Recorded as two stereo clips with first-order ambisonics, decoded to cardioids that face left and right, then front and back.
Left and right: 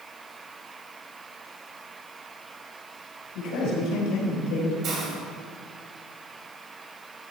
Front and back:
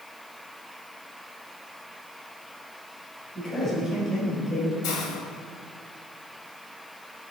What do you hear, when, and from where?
3.4 s a man speaking: 70° left, 4 m
4.8 s a hiss: 35° right, 2.5 m